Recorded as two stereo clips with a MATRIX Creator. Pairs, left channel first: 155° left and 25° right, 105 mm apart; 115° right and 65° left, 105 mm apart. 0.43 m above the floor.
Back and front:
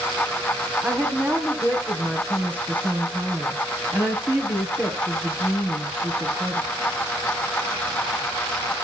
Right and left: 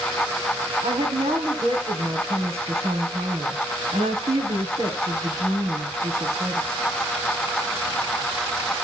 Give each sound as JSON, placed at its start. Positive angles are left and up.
{"t": 0.8, "sound": "a woman speaking", "azimuth_deg": 50, "distance_m": 4.0}